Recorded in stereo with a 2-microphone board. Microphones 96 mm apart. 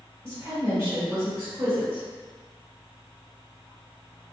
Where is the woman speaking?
25° right (ahead or behind), 1.2 m.